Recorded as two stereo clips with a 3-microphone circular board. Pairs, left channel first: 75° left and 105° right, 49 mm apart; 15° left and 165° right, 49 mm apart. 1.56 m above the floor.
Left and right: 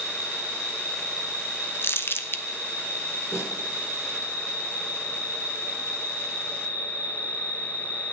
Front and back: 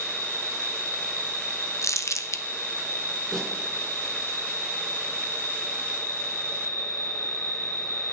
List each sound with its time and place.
0.0 s an insect: 165° right, 4 m
1.8 s crumpling: 30° left, 0.9 m
3.3 s a snare drum: 105° left, 6 m